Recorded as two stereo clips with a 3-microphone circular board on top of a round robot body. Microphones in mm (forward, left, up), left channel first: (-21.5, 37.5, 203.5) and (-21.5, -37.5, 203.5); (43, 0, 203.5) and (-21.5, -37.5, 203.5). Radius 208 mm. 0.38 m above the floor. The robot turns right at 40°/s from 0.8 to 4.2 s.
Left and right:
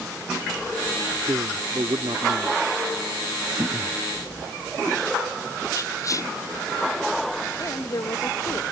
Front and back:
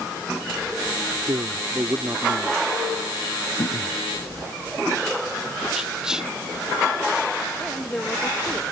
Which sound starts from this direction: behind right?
A man speaking, at 1.3 s.